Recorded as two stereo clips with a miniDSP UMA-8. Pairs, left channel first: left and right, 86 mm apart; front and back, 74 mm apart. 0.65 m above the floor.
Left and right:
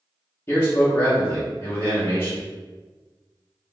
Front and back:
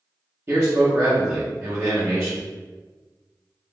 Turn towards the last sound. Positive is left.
turn(degrees=140)